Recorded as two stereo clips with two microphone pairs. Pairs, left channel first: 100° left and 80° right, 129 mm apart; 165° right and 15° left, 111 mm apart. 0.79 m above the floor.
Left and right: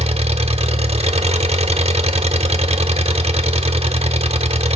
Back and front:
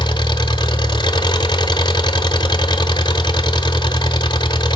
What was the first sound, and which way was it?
An engine running, 120° right.